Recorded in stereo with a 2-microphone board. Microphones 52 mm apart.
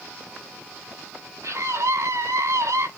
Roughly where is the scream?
Right.